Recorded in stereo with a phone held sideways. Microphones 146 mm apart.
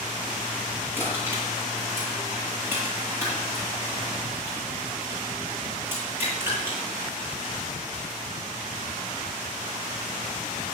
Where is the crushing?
15° right (ahead or behind), 9 m.